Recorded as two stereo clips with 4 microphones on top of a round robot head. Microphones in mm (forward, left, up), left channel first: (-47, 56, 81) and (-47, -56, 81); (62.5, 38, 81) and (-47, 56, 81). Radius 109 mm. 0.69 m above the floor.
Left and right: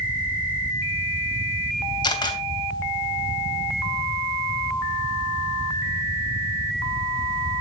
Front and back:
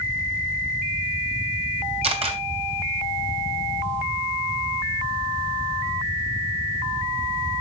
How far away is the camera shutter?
About 3 m.